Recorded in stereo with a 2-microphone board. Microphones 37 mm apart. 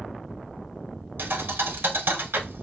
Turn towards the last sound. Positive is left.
turn(degrees=-75)  # may be behind; listen again after turning